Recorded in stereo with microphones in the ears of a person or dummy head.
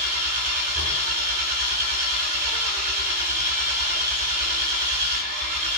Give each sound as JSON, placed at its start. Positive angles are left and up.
{"t": 0.0, "sound": "an engine running", "side_deg": -40, "distance_m": 3.0}